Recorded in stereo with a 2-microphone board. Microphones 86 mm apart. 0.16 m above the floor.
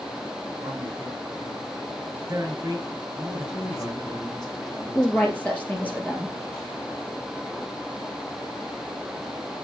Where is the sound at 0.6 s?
40° right (ahead or behind), 2.5 m.